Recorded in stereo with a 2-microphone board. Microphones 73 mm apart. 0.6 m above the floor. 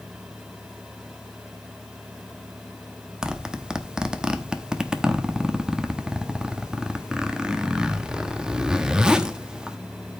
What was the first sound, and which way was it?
A zipper, 10° right (ahead or behind).